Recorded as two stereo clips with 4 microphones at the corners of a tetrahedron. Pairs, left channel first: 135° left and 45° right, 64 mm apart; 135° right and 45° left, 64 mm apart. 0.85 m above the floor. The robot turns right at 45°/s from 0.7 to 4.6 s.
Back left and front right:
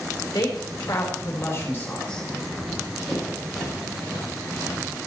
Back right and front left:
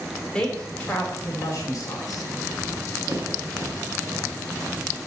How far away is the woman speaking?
About 3 m.